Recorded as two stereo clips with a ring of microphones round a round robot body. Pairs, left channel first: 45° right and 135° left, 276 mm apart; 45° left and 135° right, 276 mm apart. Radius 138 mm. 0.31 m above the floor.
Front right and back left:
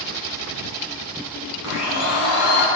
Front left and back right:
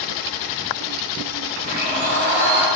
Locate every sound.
1.6 s a blender: 85° right, 1.3 m